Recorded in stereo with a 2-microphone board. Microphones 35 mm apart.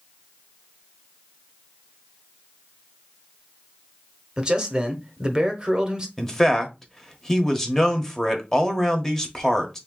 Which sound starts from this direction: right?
A man speaking, at 4.4 s.